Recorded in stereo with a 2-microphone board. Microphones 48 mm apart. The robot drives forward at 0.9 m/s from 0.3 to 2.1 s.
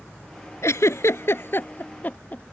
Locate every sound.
0.6 s a giggle: 80° left; by 2.4 s 35° left (ahead or behind)